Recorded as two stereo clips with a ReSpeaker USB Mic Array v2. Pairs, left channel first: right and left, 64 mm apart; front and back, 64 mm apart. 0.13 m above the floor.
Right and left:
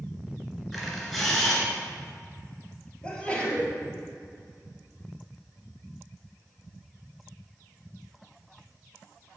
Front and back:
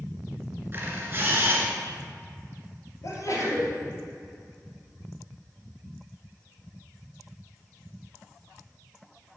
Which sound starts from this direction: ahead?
A sneeze, at 3.0 s.